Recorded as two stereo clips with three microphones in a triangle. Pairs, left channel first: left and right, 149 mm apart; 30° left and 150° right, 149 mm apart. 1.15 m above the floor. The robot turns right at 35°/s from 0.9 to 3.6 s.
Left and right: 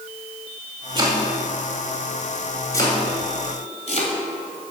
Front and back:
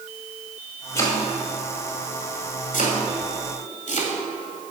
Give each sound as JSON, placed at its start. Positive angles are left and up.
{"t": 0.9, "sound": "chopping", "azimuth_deg": -40, "distance_m": 1.9}